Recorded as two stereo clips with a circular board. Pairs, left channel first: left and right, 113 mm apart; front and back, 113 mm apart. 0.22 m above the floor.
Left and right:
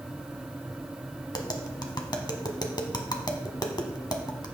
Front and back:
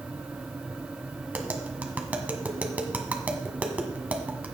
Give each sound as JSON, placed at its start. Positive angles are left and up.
{"t": 1.3, "sound": "tapping", "azimuth_deg": 110, "distance_m": 1.4}